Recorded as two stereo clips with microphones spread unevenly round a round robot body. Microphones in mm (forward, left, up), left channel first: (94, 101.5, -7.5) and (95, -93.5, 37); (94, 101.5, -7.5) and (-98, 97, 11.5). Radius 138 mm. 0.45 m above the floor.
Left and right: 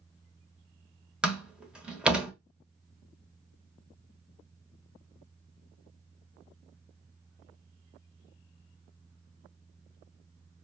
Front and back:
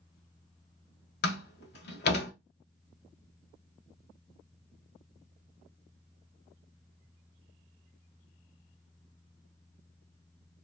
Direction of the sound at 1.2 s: Straight ahead.